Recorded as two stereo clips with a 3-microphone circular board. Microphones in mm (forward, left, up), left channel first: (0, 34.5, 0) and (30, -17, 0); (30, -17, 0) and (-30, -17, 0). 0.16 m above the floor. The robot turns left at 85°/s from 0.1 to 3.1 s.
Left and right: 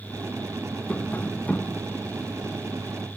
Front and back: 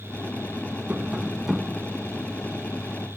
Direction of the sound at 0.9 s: 155° left.